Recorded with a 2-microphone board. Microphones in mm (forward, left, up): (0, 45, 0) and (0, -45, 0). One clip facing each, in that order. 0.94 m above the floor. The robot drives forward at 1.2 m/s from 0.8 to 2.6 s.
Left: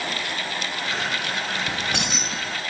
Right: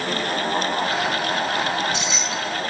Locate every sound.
1.7 s keys jangling: 80° left, 0.6 m; by 2.6 s 30° left (ahead or behind), 1.2 m